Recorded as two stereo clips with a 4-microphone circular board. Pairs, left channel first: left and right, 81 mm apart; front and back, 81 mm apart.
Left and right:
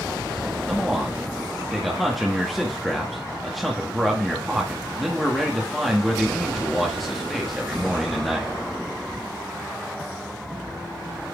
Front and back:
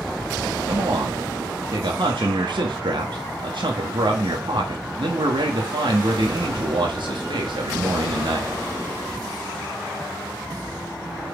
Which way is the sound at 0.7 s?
Straight behind.